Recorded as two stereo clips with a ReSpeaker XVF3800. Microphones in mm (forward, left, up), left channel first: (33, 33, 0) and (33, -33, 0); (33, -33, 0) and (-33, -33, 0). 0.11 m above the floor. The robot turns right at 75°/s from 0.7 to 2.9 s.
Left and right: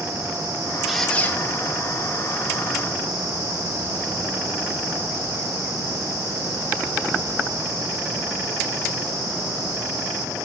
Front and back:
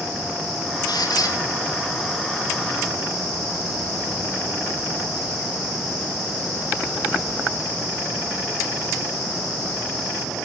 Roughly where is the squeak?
Ahead.